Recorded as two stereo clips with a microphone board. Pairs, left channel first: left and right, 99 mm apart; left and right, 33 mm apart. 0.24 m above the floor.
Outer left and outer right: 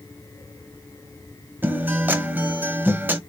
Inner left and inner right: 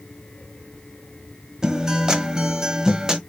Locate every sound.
1.6 s a guitar: 20° right (ahead or behind), 0.9 m